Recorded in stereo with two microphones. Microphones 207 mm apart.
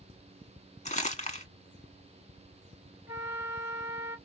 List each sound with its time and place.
0.8 s crumpling: 35° left (ahead or behind), 1.2 m
3.1 s a flute: 10° right (ahead or behind), 3 m